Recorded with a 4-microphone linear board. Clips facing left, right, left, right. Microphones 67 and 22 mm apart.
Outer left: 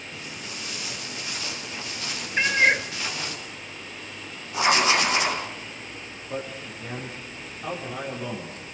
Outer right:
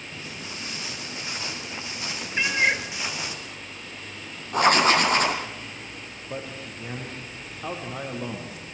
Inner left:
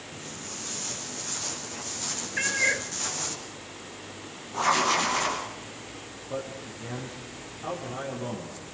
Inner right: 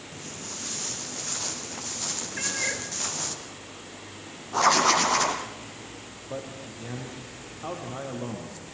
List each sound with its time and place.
0.1 s footsteps: 30° right (ahead or behind), 7.5 m; by 3.4 s 15° right (ahead or behind), 6 m
2.4 s a cat meowing: 20° left (ahead or behind), 1.1 m
4.5 s writing: 45° right (ahead or behind), 5 m
6.3 s a man speaking: 10° right (ahead or behind), 6.5 m